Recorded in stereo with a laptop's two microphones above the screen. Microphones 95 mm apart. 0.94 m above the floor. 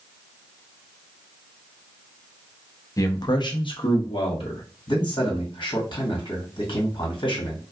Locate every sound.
3.0 s a man speaking: 35° left (ahead or behind), 0.6 m; by 4.6 s 70° left (ahead or behind), 1.4 m
4.9 s a man speaking: 55° left (ahead or behind), 1.7 m